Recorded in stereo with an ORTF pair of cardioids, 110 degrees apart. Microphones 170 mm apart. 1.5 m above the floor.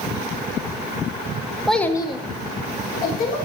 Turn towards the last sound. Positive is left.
turn(degrees=65)